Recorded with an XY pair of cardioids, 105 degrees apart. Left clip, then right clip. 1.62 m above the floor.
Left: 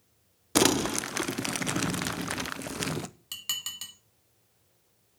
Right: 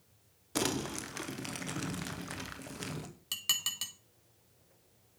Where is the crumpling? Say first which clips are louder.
Left 10 dB; 65° left, 0.9 m.